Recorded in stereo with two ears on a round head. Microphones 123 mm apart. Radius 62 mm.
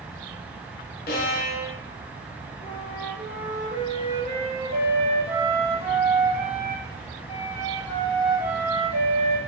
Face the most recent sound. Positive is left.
turn(degrees=65)  # may be behind; listen again after turning